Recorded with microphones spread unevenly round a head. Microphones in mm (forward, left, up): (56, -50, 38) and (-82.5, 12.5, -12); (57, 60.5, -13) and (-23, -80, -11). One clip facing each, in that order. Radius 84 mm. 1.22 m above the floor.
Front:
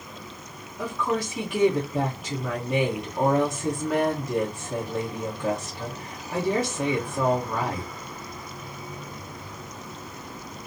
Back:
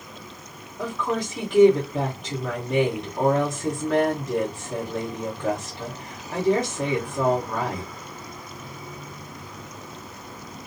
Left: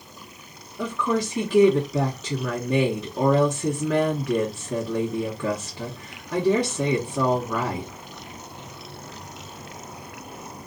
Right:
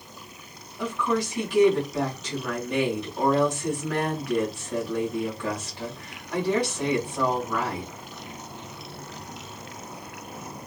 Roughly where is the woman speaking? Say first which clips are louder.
Even, left 1 dB; ahead left.